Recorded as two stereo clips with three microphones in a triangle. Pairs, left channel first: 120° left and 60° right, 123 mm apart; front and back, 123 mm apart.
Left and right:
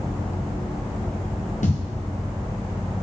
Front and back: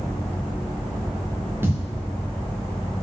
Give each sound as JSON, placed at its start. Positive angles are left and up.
{"t": 1.6, "sound": "a thud", "azimuth_deg": 110, "distance_m": 1.9}